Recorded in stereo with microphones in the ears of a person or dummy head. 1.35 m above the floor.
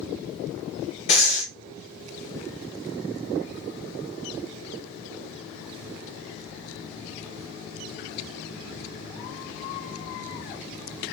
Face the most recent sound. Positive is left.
turn(degrees=35)  # may be behind; listen again after turning